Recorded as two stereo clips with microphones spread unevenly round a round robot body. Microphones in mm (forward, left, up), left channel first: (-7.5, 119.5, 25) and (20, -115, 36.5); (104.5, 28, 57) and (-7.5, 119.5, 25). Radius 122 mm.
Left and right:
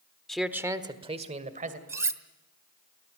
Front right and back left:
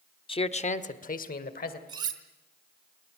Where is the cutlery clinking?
165° right, 1.0 m.